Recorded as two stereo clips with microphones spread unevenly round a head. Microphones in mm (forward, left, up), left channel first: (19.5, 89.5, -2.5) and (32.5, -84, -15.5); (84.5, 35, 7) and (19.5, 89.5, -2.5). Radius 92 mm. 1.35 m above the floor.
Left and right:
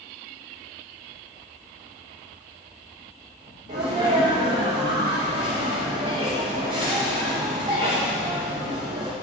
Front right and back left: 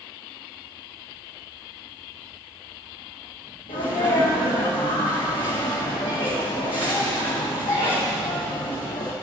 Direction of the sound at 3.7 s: 25° right.